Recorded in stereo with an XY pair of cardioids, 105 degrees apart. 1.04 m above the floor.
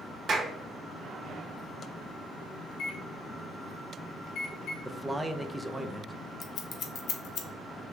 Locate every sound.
0.3 s a clap: 55° right, 1.0 m
2.7 s a microwave: 60° left, 1.1 m
4.8 s a man speaking: 10° right, 0.6 m
6.4 s scissors: 60° left, 0.9 m